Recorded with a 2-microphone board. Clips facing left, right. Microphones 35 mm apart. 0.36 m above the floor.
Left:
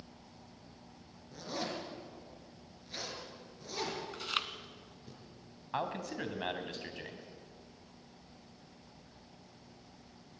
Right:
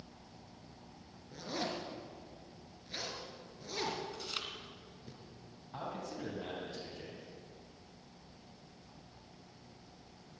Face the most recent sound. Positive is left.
turn(degrees=60)  # may be behind; listen again after turning